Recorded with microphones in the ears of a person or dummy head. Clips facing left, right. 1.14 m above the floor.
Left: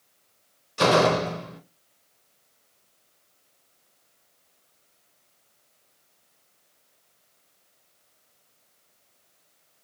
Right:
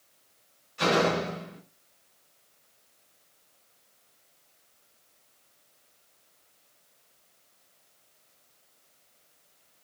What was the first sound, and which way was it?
A door slam, 80° left.